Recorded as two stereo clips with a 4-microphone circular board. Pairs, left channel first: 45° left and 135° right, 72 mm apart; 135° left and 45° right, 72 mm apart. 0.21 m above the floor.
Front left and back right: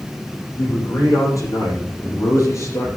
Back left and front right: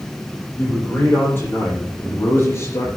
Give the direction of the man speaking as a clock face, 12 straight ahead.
9 o'clock.